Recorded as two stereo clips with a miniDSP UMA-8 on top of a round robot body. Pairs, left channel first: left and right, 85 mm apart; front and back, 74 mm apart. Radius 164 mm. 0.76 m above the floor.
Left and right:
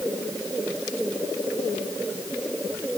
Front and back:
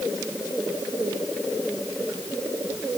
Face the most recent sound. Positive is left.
No sound to turn to.